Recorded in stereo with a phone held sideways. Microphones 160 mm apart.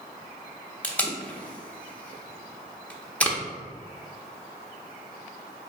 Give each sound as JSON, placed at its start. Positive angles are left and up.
{"t": 0.8, "sound": "tape being pulled", "side_deg": 10, "distance_m": 0.5}